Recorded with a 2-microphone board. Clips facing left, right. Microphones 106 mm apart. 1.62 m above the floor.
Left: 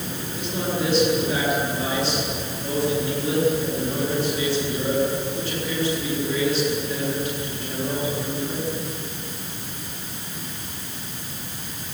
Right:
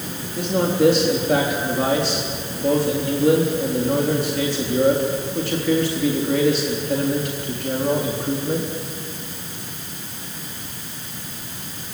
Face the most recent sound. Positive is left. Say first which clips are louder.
# right 8 dB
turn(degrees=-70)  # may be behind; listen again after turning